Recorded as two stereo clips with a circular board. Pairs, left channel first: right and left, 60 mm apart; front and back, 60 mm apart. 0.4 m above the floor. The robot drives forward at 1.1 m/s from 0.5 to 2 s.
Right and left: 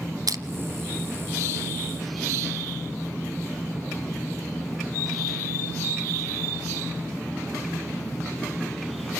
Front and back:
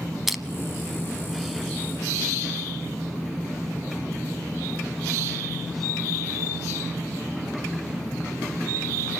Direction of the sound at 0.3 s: 95° left.